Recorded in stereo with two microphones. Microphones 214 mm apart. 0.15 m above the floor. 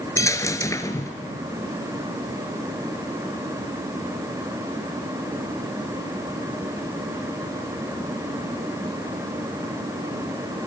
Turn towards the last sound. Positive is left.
turn(degrees=15)  # may be behind; listen again after turning